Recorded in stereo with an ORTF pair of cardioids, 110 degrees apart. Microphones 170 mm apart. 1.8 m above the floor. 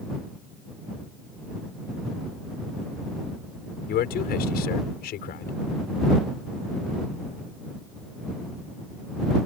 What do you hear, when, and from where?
3.9 s a man speaking: 70° left